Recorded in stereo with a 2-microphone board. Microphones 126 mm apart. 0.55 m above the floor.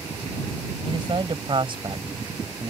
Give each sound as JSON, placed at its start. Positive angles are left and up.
{"t": 0.9, "sound": "a man speaking", "side_deg": -40}